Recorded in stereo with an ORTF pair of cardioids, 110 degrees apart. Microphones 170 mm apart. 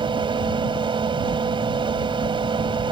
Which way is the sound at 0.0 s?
30° right.